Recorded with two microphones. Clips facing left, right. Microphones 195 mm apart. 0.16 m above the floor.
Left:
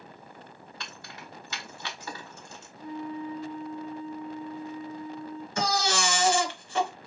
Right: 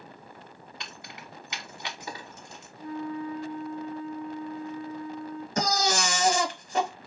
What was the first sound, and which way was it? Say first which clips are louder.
Keys jangling: even; 20° right (ahead or behind).